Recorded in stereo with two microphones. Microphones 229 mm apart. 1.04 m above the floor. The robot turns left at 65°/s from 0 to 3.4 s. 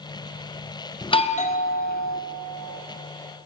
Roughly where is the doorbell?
Behind left.